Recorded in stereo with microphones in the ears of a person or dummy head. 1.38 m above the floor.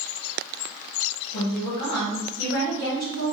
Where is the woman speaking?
45° left (ahead or behind), 1.2 m.